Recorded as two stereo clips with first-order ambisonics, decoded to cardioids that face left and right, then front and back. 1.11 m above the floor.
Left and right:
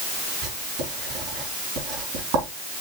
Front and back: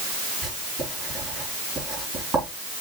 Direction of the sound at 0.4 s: 110° right.